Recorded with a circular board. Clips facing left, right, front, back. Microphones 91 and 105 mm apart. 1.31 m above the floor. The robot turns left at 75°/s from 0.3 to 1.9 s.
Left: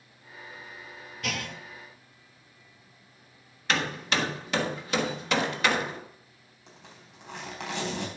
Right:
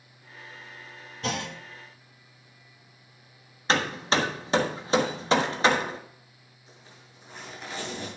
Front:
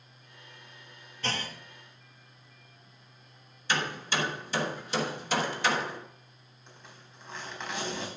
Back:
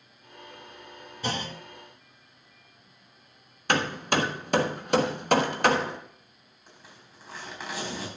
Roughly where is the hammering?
Behind right.